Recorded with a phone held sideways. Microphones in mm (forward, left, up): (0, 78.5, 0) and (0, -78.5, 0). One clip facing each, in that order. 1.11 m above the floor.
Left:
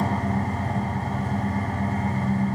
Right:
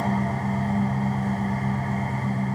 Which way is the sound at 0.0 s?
75° left (ahead or behind).